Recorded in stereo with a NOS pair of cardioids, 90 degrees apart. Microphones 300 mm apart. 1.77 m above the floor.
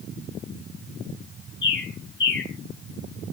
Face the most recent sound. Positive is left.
turn(degrees=40)